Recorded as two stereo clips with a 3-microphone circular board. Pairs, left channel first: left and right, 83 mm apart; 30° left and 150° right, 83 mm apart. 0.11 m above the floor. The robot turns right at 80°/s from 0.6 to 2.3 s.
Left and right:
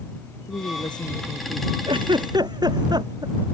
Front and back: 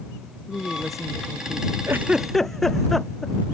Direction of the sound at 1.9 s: 90° right.